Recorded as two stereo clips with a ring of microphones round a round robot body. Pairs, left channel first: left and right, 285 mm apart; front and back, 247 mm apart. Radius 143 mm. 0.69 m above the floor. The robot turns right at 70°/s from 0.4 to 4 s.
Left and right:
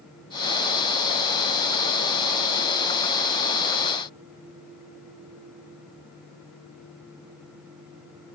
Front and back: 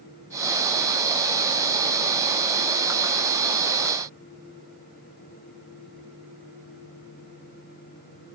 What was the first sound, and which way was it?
Only background noise.